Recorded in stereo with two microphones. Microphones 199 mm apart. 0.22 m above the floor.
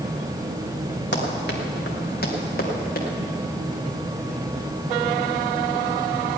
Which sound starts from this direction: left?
Running footsteps, at 1.1 s.